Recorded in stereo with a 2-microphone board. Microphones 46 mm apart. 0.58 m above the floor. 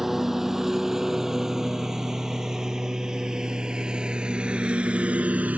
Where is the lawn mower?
5° right (ahead or behind); by 5.6 s 35° right (ahead or behind).